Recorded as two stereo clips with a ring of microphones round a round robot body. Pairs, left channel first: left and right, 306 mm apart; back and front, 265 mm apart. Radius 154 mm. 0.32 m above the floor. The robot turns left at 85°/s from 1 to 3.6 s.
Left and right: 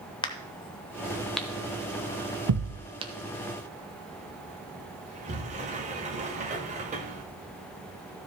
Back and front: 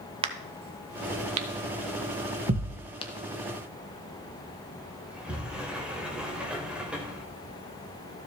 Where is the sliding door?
80° right, 1.1 m.